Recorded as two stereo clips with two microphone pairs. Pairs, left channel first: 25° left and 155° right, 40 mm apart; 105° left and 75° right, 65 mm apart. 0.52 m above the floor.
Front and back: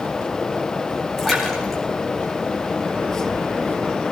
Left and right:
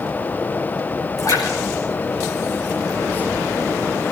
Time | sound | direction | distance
1.2 | a splash | 110° left | 4.5 m